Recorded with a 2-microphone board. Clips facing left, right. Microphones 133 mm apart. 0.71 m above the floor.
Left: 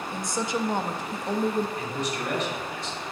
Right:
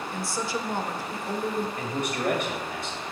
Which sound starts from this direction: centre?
A woman speaking, at 0.1 s.